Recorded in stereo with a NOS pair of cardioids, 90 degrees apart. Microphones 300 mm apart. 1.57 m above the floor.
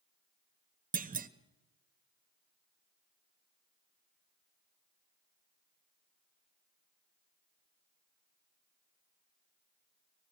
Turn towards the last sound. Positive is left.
turn(degrees=-30)